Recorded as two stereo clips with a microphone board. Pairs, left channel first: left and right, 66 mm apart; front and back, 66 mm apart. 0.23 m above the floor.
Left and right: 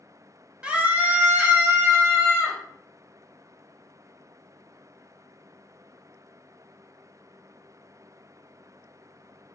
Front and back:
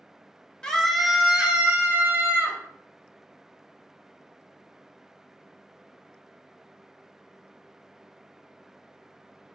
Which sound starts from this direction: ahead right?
A scream, at 0.6 s.